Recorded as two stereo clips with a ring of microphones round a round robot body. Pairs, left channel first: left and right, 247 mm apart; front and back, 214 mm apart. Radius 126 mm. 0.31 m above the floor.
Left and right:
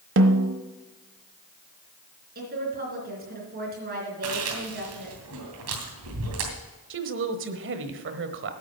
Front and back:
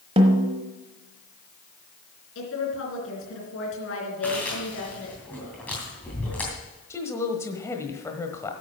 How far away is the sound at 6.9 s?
About 1.2 m.